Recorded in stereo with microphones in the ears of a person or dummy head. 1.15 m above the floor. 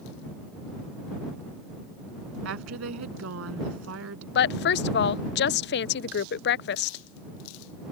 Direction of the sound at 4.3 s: 55° left (ahead or behind).